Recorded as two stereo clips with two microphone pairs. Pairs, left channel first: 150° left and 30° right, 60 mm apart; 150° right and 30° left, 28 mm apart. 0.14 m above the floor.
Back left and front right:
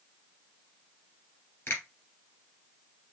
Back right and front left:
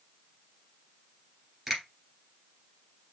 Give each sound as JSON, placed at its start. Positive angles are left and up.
{"t": 1.7, "sound": "a finger snap", "azimuth_deg": 110, "distance_m": 2.5}